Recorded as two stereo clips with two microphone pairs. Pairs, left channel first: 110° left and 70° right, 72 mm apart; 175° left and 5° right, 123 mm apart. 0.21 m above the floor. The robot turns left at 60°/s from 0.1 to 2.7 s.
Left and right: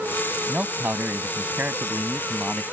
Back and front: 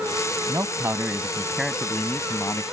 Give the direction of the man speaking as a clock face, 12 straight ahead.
1 o'clock.